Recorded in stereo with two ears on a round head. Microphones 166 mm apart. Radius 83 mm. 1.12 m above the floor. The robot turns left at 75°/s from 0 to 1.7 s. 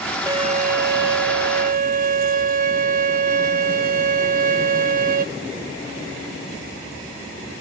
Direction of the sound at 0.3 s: 20° right.